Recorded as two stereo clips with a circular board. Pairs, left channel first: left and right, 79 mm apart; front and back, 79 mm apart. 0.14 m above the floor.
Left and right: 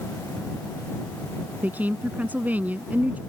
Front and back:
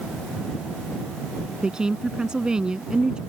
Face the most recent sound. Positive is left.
turn(degrees=-115)